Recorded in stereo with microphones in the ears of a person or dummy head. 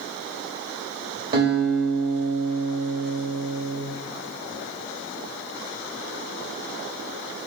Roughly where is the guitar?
Right.